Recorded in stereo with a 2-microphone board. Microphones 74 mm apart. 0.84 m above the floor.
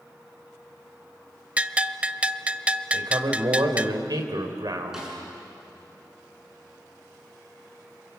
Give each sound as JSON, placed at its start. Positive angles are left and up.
{"t": 1.6, "sound": "a bell", "side_deg": -15, "distance_m": 0.6}
{"t": 2.9, "sound": "a man speaking", "side_deg": -65, "distance_m": 3.0}
{"t": 4.9, "sound": "a snare drum", "side_deg": -5, "distance_m": 8.5}